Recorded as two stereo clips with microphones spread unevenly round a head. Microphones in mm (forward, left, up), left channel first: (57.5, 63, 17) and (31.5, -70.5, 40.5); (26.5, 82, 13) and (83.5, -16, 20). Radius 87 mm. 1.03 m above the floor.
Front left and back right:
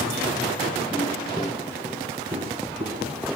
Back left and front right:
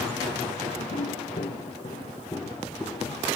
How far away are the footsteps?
About 1.9 m.